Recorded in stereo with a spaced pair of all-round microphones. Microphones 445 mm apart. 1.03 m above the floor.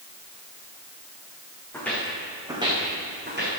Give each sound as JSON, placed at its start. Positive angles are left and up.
{"t": 1.7, "sound": "footsteps", "side_deg": 5, "distance_m": 3.0}